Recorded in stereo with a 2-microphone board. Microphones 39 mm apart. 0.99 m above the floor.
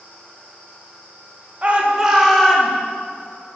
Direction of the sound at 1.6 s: 35° right (ahead or behind).